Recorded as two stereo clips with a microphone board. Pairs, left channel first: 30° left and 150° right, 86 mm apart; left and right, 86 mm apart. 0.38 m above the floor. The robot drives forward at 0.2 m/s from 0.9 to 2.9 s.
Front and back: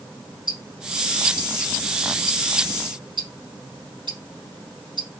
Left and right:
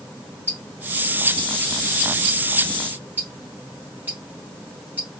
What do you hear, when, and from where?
0.5 s ticking: 155° right, 4 m